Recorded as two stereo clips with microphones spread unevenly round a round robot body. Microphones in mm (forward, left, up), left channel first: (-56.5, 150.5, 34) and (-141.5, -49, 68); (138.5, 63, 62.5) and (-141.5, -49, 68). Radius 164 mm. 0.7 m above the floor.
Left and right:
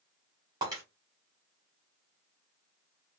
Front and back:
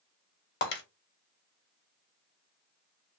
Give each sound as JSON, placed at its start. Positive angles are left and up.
{"t": 0.6, "sound": "breaking glass", "azimuth_deg": -35, "distance_m": 0.8}